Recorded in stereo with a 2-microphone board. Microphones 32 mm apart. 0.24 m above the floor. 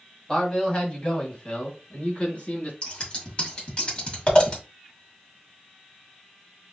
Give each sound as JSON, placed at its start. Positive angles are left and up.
{"t": 0.3, "sound": "a man speaking", "side_deg": 25, "distance_m": 1.7}
{"t": 2.8, "sound": "scissors", "side_deg": 35, "distance_m": 1.8}